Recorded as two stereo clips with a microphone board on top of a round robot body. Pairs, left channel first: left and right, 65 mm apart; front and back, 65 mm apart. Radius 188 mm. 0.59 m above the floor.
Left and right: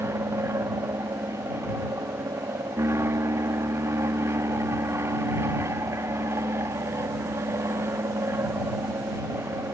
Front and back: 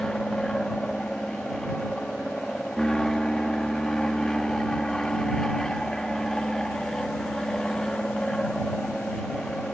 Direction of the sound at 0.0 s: 80° right.